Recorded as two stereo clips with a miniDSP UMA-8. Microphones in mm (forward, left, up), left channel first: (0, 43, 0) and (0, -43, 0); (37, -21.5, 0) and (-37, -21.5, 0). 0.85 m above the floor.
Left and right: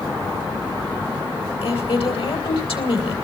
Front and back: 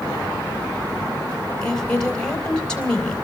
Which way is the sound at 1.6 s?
80° left.